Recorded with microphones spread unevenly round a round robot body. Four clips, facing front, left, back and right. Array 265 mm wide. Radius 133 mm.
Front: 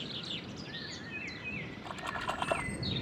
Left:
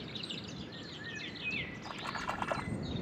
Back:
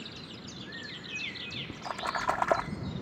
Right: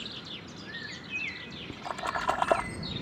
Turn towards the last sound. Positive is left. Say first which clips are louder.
# right 13 dB, back 8 dB
turn(degrees=-120)